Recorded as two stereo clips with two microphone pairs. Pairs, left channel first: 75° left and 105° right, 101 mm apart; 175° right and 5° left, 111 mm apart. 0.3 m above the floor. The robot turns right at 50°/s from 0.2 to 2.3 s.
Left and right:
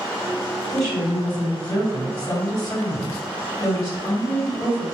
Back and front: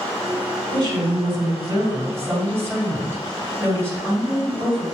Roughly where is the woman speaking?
Ahead.